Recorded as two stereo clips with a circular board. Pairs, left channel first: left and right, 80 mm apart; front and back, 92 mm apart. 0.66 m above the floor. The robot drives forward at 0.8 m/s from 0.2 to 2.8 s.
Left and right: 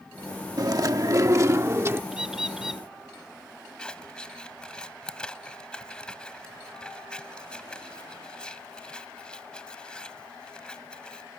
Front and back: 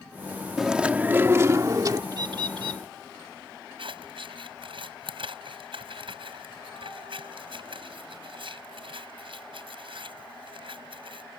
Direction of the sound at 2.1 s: 170° right.